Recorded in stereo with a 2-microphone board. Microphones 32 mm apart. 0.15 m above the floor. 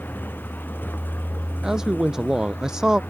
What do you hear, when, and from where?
0.0 s a vehicle: 80° left
1.6 s a man speaking: 20° right (ahead or behind)